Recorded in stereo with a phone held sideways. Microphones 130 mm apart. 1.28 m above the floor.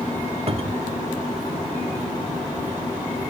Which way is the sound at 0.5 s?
45° right (ahead or behind).